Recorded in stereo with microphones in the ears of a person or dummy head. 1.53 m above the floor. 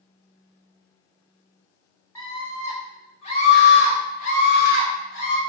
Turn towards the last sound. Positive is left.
turn(degrees=75)  # may be behind; listen again after turning